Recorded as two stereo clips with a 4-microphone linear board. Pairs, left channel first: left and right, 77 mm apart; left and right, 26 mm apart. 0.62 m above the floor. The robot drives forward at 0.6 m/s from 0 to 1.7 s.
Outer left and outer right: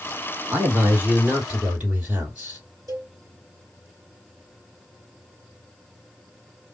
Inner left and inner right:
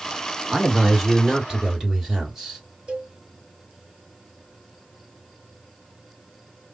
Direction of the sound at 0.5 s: 30° right (ahead or behind).